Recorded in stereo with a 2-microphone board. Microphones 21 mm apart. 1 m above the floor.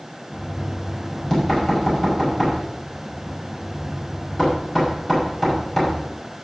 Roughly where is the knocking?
Left.